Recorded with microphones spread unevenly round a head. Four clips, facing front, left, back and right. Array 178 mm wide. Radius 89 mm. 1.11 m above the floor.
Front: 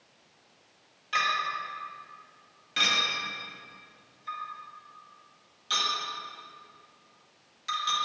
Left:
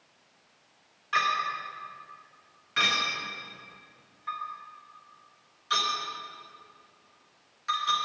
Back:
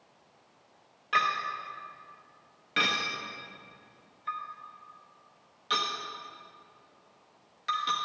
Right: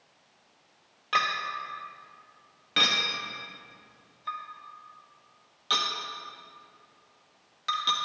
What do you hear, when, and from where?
1.1 s a clink: 120° right, 1.1 m